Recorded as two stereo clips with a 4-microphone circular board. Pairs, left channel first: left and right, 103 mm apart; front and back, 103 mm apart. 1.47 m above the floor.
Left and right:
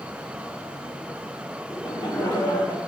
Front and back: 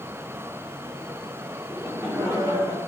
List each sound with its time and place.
1.7 s laughter: 115° left, 3 m; by 2.8 s 135° left, 2.5 m